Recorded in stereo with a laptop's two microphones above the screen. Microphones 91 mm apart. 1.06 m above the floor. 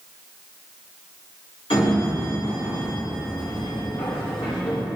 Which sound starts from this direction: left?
A sliding door, at 1.7 s.